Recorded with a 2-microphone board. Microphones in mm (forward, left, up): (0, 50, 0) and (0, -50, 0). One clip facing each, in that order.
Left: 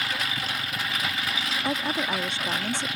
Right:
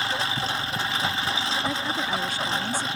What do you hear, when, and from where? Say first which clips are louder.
0.0 s a lawn mower: right 4 dB; 30° right (ahead or behind)
1.6 s a woman speaking: even; 25° left (ahead or behind)